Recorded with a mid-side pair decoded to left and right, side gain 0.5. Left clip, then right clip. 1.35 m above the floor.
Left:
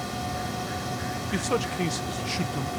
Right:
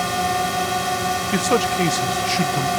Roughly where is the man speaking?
Ahead right.